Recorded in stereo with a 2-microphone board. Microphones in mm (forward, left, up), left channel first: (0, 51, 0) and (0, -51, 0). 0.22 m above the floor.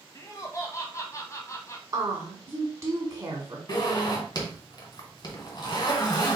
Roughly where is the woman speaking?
Right.